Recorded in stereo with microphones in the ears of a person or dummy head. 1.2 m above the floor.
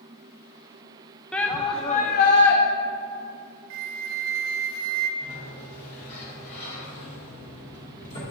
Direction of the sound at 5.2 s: 30° left (ahead or behind).